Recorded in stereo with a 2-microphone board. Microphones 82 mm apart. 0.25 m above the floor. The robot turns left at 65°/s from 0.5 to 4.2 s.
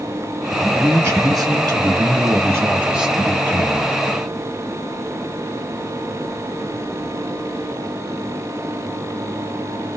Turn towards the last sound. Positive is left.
turn(degrees=110)